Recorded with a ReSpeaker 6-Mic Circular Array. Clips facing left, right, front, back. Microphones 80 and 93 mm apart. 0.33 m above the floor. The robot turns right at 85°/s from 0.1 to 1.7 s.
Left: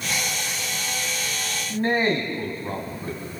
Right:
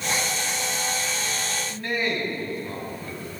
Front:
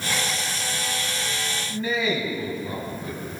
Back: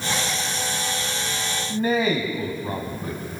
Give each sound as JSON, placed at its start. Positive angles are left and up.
{"t": 1.7, "sound": "a man speaking", "azimuth_deg": 135, "distance_m": 3.0}